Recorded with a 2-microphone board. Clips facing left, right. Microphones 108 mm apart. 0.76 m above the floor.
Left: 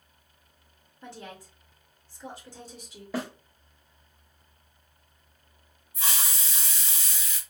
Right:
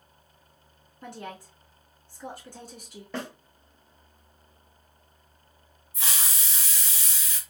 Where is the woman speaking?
55° right (ahead or behind), 1.6 m.